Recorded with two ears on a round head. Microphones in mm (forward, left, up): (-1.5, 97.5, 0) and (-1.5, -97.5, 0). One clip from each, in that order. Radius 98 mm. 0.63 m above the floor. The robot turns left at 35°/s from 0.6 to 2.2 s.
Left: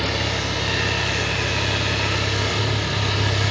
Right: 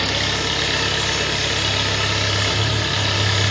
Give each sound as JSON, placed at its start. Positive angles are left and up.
{"t": 0.0, "sound": "an engine running", "azimuth_deg": -80, "distance_m": 6.0}